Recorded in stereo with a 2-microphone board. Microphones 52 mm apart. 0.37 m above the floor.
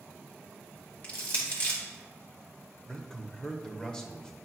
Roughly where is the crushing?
Left.